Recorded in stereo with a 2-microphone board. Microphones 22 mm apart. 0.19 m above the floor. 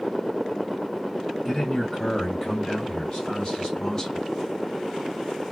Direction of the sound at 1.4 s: 10° left (ahead or behind).